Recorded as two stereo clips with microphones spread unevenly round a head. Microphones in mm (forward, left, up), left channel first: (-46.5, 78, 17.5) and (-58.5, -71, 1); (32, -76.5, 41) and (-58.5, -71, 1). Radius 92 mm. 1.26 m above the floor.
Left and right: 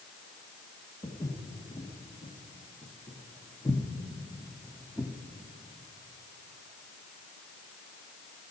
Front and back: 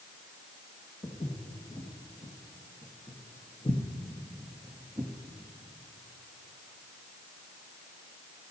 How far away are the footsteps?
About 3.5 m.